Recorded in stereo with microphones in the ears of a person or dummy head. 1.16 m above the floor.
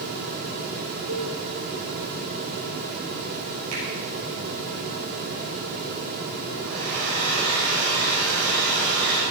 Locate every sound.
1.1 s a cowbell: 75° right (ahead or behind), 2 m
3.7 s a finger snap: 80° right, 6 m
6.6 s a hair dryer: 60° right (ahead or behind), 5.5 m